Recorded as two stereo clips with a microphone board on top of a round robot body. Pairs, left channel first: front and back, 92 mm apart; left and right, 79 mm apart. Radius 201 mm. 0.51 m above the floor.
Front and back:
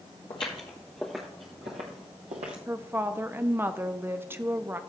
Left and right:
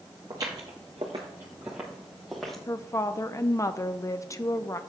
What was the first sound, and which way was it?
Footsteps, 35° right.